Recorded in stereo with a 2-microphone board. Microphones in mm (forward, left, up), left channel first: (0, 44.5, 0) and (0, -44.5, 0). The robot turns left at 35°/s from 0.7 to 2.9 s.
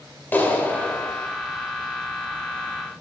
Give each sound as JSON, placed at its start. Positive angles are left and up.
{"t": 0.3, "sound": "a clap", "side_deg": 20, "distance_m": 2.0}